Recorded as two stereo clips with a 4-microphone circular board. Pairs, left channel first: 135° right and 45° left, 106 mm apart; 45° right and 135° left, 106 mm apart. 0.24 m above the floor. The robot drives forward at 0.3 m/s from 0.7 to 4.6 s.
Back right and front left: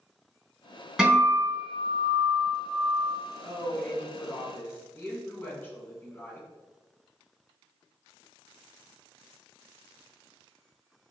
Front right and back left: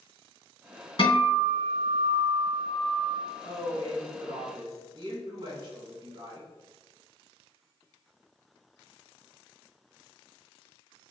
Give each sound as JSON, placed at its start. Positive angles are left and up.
{"t": 1.0, "sound": "a guitar", "azimuth_deg": -35, "distance_m": 1.8}
{"t": 3.4, "sound": "a woman speaking", "azimuth_deg": 155, "distance_m": 1.6}